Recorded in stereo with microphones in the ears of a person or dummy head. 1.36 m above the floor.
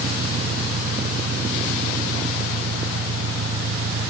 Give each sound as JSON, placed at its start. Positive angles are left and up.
{"t": 0.0, "sound": "an engine running", "side_deg": -80}